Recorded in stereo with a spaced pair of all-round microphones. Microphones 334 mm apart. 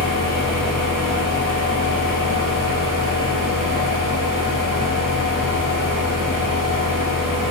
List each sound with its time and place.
0.0 s a fan: 75° left (ahead or behind), 0.8 m